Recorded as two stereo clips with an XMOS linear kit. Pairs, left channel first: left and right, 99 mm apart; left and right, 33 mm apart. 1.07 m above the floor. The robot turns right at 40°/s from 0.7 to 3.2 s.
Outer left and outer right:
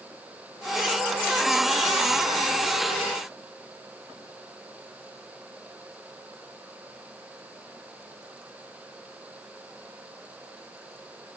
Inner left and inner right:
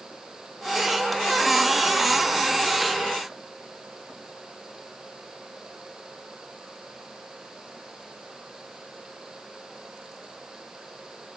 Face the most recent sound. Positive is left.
No sound to turn to.